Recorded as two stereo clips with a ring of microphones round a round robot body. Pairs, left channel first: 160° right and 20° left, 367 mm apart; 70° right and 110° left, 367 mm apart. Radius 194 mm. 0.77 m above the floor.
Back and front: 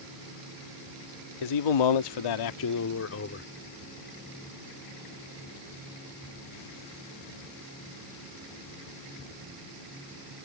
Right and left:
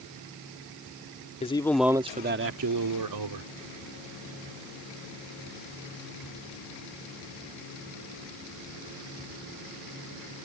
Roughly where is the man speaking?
Behind right.